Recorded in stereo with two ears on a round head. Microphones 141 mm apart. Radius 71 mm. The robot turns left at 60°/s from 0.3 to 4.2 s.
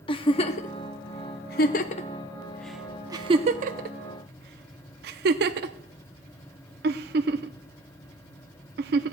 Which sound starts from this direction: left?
A giggle, at 0.1 s.